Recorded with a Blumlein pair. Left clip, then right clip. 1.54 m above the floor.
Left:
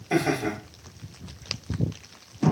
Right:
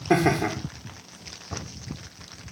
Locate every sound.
0.1 s laughter: 45° right, 0.8 m